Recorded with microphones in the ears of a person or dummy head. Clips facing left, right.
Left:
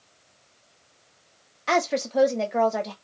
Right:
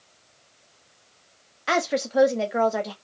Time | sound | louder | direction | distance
1.7 | a woman speaking | even | 10° right (ahead or behind) | 1.0 m